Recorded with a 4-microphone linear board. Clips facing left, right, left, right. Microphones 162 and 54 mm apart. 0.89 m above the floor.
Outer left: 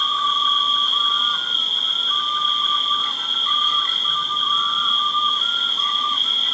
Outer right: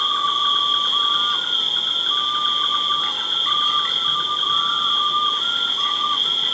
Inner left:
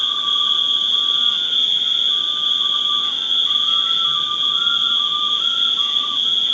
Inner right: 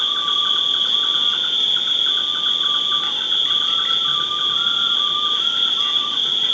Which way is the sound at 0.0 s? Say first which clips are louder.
Even, even; 70° right (ahead or behind).